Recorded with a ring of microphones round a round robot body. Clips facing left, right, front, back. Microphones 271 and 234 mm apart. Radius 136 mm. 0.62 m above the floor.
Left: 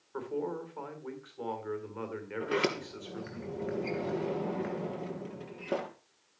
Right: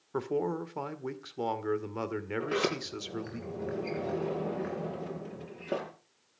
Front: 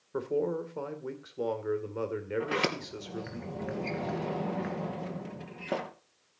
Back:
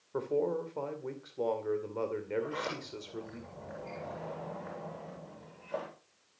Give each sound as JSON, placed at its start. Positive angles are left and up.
{"t": 0.1, "sound": "a man speaking", "azimuth_deg": -80, "distance_m": 2.0}
{"t": 2.4, "sound": "a sliding door", "azimuth_deg": 5, "distance_m": 2.5}